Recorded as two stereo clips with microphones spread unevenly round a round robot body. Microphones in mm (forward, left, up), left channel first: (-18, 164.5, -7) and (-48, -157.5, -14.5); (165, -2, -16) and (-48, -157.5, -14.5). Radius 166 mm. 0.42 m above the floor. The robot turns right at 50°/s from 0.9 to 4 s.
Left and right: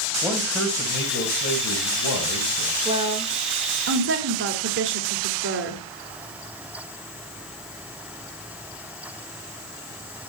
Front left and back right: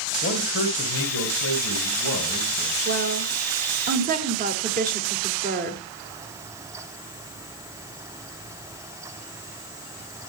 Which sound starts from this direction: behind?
A woman speaking, at 2.9 s.